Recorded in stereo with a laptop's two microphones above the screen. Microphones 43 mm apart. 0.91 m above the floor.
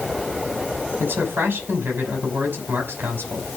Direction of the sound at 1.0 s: 55° right (ahead or behind).